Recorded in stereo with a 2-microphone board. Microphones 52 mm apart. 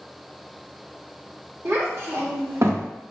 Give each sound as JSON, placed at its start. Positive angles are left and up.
{"t": 1.6, "sound": "a child speaking", "side_deg": -55, "distance_m": 1.5}